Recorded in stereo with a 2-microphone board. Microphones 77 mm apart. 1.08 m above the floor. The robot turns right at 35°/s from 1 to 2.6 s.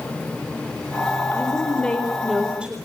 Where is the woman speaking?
150° left, 4 m; by 2.8 s 165° right, 4 m.